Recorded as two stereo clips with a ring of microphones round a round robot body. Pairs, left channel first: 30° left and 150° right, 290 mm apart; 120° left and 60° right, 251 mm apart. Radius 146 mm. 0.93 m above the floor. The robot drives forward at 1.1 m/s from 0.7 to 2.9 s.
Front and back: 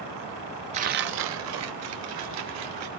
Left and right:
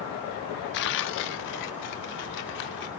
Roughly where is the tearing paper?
Behind left.